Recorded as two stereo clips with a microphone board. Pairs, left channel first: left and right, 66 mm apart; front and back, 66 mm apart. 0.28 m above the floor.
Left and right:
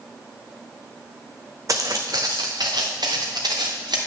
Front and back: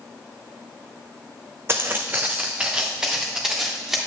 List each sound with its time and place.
1.7 s footsteps: 125° right, 1.0 m; by 4.0 s 95° right, 3 m